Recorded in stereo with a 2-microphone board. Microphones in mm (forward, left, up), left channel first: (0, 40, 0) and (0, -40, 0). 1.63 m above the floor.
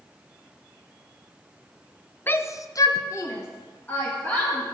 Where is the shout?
25° left (ahead or behind), 0.7 m.